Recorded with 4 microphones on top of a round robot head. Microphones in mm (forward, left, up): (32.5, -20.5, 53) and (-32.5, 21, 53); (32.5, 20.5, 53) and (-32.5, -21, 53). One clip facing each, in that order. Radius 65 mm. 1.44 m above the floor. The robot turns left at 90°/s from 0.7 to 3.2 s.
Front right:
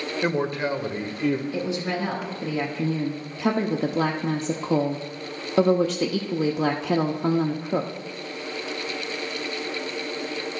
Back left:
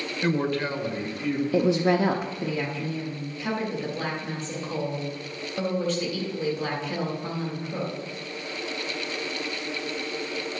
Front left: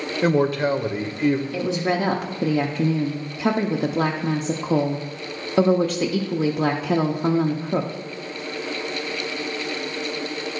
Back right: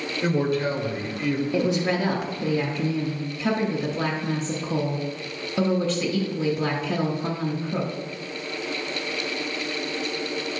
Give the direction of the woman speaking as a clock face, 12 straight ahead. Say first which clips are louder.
Back left 6 dB, even; 7 o'clock.